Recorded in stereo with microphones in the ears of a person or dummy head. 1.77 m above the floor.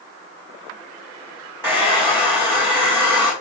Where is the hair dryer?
10° right (ahead or behind), 6 m.